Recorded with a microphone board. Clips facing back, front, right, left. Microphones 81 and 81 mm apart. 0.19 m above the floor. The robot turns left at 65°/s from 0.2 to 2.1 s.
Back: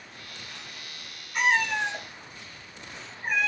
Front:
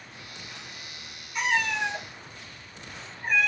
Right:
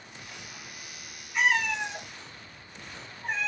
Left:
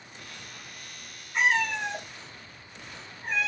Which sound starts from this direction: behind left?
A cat meowing, at 1.3 s.